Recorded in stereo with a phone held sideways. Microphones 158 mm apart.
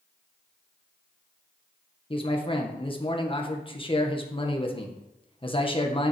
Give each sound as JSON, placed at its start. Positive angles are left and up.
{"t": 2.1, "sound": "a man speaking", "side_deg": 35, "distance_m": 1.5}